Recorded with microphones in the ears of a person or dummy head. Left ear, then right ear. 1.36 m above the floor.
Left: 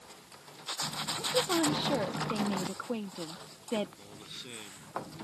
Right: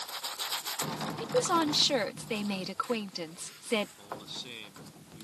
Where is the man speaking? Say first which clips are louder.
Right 5 dB; 25° right (ahead or behind).